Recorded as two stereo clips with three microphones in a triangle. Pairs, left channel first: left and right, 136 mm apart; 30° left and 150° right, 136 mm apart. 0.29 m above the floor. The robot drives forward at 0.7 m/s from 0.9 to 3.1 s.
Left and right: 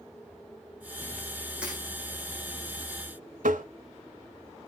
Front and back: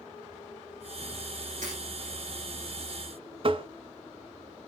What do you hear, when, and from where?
1.6 s breaking glass: 170° right, 9 m
3.4 s tapping: 100° right, 0.7 m